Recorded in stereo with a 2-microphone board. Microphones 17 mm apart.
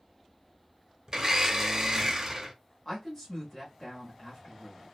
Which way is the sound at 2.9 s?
25° left (ahead or behind).